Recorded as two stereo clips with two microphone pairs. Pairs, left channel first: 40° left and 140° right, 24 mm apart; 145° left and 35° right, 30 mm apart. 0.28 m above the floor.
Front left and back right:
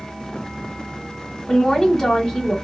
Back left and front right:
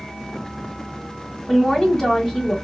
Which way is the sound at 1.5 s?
100° left.